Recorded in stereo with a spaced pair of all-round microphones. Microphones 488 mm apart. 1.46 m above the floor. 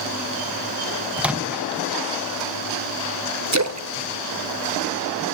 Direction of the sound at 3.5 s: 35° right (ahead or behind).